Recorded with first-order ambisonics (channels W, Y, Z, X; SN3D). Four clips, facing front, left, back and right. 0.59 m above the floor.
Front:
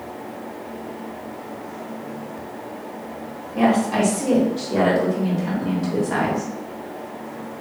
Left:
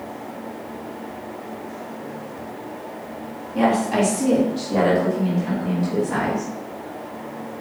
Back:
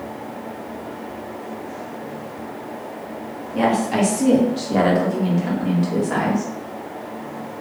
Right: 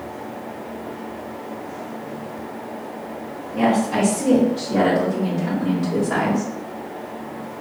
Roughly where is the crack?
No crack in this recording.